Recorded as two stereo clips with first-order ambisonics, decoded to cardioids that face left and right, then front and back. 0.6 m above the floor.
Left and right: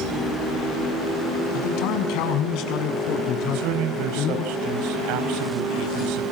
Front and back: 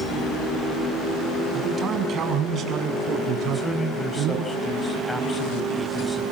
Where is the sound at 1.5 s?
115° left, 4 m; by 4.4 s 135° left, 7 m.